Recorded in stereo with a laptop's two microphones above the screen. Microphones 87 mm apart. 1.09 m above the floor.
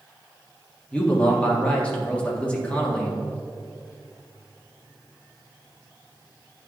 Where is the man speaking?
15° left (ahead or behind), 1.6 m.